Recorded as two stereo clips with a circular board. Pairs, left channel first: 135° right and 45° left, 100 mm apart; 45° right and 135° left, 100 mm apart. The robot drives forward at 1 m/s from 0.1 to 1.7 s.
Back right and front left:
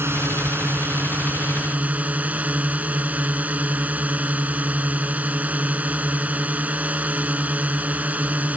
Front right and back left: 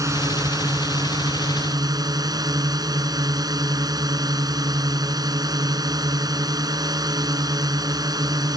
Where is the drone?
100° left; by 8.6 s 115° left.